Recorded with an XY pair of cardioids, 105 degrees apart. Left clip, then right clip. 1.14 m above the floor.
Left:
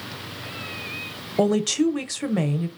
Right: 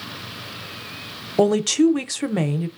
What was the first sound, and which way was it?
A woman speaking, 20° right.